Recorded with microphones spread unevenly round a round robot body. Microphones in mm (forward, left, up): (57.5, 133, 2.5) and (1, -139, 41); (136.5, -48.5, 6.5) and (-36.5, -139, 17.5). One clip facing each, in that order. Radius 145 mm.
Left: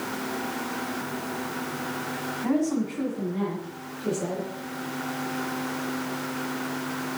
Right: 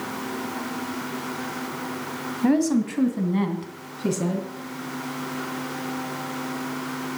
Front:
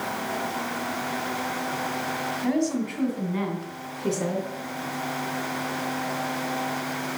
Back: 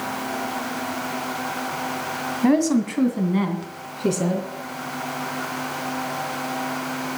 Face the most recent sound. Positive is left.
turn(degrees=-100)